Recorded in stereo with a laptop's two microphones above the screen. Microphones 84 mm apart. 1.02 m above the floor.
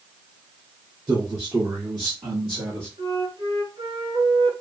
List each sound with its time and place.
1.1 s a man speaking: 45° right (ahead or behind), 2 m; by 2.9 s 75° right (ahead or behind), 1.4 m
3.0 s a flute: 70° right (ahead or behind), 1.7 m